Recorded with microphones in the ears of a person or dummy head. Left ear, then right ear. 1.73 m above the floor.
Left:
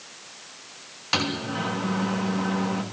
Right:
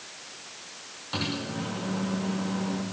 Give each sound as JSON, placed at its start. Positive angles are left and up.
{"t": 1.1, "sound": "a microwave", "side_deg": 70, "distance_m": 3.0}